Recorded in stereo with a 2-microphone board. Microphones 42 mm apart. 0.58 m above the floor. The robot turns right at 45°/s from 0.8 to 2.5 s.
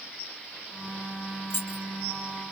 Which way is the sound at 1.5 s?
70° left (ahead or behind).